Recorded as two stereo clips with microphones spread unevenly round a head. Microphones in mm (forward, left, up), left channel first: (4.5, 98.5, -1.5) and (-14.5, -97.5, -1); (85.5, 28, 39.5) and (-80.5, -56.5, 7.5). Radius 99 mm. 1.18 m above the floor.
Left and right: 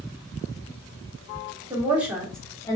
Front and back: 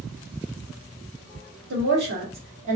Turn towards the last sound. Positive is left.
turn(degrees=155)